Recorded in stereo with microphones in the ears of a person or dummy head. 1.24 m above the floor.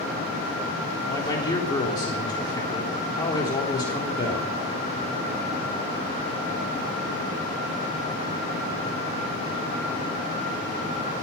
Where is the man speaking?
20° left (ahead or behind), 3.5 m.